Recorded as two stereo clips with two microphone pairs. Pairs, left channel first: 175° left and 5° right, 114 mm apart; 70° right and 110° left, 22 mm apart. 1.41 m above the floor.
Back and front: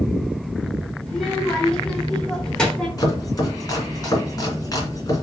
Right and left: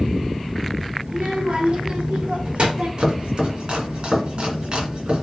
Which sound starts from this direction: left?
A child speaking, at 1.1 s.